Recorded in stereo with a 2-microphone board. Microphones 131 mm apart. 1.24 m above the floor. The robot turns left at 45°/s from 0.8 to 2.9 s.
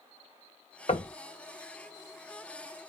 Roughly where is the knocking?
Left.